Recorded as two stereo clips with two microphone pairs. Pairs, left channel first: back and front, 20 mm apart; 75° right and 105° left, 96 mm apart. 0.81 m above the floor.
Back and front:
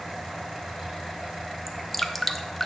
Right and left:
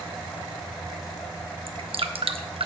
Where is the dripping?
100° left, 0.7 m.